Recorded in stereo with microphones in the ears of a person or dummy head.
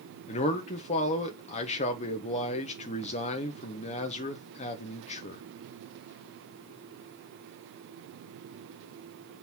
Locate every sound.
0.3 s a man speaking: 35° left (ahead or behind), 1.1 m